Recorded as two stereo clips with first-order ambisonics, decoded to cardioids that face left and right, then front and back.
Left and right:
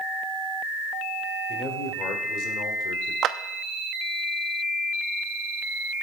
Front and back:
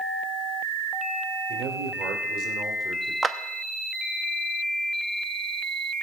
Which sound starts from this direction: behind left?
A man speaking, at 1.5 s.